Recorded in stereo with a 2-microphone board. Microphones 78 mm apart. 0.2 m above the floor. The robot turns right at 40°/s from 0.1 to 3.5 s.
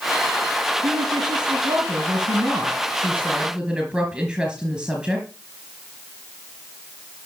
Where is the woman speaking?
120° right, 3.5 m; by 5.3 s 10° right, 3.5 m.